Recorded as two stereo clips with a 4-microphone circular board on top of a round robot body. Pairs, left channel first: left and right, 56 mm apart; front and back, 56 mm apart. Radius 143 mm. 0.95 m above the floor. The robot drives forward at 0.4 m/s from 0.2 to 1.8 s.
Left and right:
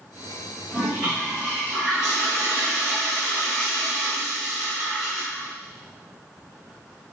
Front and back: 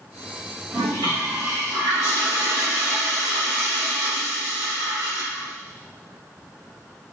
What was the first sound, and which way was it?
A toilet flushing, 170° right.